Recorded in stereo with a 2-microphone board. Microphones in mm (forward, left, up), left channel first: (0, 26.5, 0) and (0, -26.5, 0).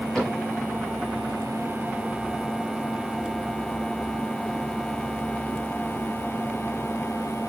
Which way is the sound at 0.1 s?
5° left (ahead or behind).